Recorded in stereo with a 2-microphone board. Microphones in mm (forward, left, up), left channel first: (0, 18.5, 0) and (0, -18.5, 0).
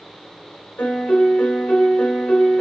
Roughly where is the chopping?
I don't hear chopping.